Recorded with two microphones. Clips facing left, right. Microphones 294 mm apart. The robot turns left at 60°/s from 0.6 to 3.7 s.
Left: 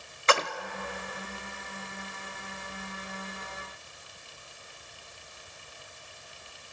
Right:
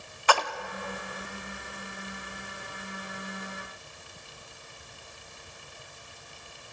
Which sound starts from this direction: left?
A splash, at 0.3 s.